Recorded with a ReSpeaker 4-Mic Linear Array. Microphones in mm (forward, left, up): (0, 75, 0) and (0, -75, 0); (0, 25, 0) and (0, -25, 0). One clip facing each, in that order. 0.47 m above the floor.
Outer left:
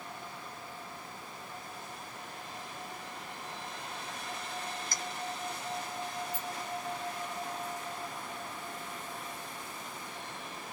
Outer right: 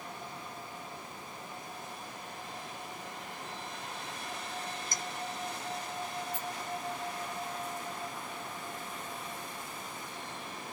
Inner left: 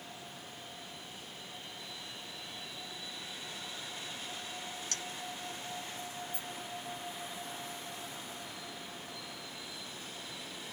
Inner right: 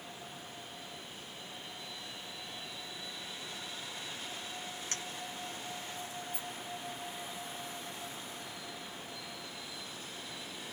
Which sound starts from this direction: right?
A clink, at 4.9 s.